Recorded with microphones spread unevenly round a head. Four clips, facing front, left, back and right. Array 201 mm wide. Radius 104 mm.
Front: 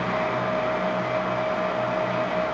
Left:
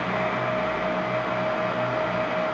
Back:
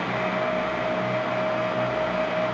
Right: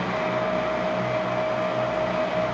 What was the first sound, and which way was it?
Only background noise.